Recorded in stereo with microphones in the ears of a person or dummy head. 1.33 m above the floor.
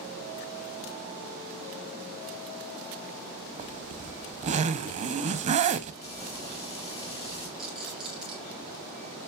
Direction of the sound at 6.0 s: 30° left (ahead or behind).